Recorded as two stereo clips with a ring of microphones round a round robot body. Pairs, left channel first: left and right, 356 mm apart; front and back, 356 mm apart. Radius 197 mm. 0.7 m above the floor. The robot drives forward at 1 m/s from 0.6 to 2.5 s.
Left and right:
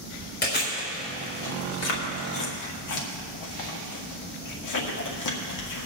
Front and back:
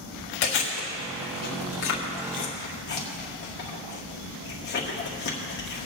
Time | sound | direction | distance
0.4 | chewing | 25° left | 3 m